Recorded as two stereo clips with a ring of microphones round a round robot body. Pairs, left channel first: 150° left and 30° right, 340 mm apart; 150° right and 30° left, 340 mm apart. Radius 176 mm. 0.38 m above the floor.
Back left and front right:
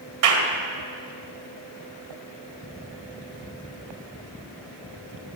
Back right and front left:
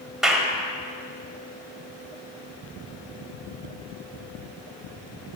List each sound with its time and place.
0.2 s a clap: 60° right, 1.5 m